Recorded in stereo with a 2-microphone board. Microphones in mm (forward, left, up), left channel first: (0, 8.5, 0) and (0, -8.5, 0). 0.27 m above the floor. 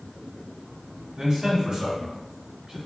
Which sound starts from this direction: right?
A man speaking, at 1.2 s.